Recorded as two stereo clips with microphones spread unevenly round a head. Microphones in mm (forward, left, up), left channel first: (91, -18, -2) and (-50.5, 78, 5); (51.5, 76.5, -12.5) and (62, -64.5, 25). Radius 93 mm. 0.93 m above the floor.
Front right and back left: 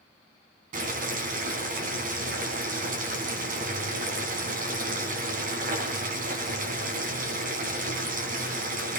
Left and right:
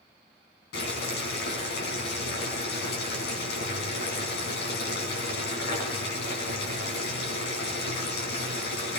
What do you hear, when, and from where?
0.7 s boiling: 105° left, 4 m